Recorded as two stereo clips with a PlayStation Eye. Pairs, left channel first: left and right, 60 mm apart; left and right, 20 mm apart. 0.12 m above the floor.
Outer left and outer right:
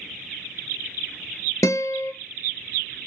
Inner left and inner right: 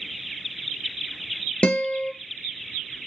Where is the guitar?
60° left (ahead or behind), 0.7 m.